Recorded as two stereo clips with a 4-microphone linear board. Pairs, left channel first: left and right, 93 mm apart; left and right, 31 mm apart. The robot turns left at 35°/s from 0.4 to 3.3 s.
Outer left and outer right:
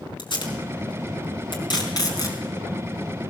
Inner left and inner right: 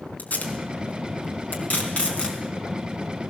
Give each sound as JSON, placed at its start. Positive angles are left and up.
{"t": 0.2, "sound": "tape being pulled", "side_deg": 65, "distance_m": 4.0}